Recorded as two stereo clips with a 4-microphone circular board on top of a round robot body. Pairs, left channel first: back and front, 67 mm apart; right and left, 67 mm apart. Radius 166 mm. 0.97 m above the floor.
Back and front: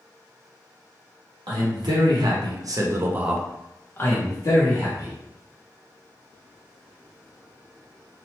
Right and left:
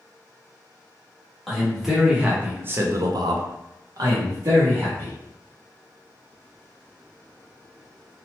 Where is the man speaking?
5° left, 1.2 m; by 5.1 s 145° left, 1.2 m.